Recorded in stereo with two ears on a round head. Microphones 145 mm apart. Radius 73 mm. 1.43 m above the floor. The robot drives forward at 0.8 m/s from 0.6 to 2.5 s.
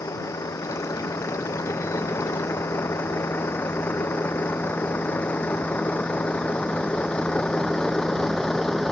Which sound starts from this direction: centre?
A vehicle, at 0.0 s.